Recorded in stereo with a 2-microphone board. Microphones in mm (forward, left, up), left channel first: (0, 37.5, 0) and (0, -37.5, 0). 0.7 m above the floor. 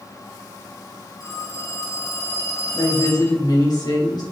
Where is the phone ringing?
50° left (ahead or behind), 5.5 m.